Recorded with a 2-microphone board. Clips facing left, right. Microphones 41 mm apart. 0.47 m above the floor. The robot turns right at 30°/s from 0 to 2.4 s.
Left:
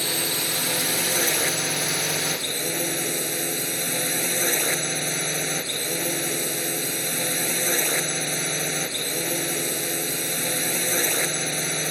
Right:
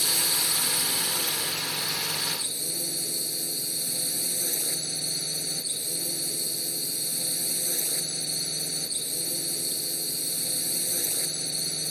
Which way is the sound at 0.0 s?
40° left.